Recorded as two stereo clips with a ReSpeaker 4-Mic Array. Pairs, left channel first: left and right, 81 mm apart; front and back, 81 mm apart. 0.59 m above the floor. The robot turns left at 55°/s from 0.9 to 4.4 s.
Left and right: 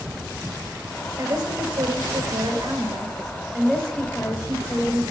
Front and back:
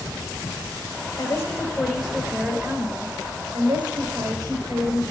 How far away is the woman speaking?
About 4 m.